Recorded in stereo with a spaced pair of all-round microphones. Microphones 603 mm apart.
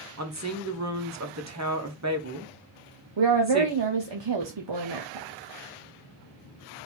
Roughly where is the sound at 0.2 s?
Right.